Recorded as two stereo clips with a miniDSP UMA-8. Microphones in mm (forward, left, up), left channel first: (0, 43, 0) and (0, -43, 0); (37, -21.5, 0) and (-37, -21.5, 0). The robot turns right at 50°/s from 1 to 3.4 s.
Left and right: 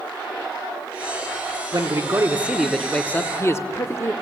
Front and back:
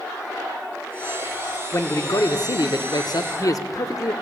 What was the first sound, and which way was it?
A man speaking, 50° right.